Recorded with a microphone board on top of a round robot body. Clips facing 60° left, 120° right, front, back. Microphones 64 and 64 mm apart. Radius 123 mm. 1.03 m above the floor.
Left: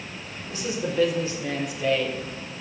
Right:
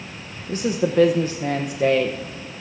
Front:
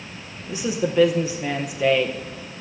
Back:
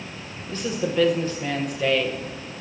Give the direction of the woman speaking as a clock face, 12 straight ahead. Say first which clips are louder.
Right 7 dB, front 2 dB; 3 o'clock.